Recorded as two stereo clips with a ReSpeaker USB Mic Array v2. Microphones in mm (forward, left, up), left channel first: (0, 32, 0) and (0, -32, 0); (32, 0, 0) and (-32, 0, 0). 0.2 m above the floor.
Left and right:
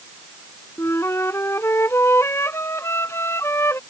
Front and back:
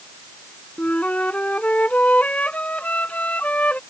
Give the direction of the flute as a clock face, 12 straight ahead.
10 o'clock.